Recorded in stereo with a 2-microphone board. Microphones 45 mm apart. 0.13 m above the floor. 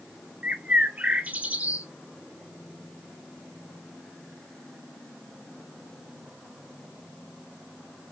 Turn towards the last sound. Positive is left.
turn(degrees=-30)  # may be behind; listen again after turning